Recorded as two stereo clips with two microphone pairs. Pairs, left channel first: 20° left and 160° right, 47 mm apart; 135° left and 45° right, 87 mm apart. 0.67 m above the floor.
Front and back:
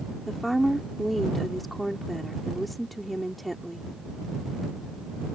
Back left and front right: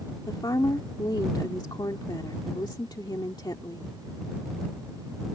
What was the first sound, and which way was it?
A woman speaking, 115° left.